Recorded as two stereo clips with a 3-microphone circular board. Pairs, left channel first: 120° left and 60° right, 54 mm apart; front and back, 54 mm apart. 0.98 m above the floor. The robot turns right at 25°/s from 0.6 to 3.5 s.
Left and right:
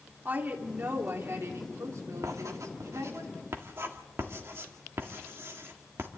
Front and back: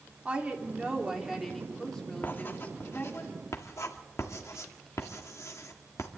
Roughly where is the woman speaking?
Behind right.